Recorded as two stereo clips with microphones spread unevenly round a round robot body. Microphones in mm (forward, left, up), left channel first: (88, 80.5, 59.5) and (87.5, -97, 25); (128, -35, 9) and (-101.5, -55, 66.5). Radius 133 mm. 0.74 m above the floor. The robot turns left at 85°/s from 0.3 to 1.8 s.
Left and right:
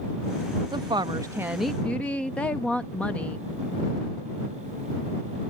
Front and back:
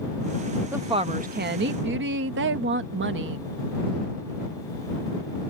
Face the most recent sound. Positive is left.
turn(degrees=-175)